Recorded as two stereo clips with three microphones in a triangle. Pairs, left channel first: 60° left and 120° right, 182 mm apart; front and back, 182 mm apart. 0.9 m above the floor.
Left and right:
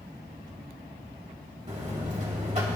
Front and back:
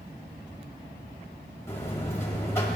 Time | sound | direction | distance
1.7 | a buzzer | 75° right | 2.5 m